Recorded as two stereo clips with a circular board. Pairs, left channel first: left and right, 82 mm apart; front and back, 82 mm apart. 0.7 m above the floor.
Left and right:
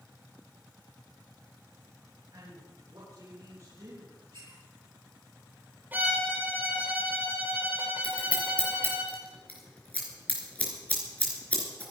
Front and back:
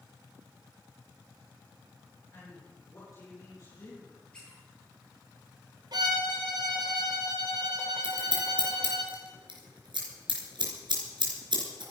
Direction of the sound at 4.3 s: 80° right.